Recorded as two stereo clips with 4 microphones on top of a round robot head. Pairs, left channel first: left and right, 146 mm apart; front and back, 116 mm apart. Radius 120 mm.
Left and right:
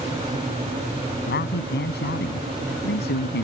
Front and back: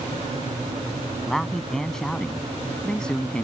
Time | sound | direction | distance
1.3 | a man speaking | 85° left | ?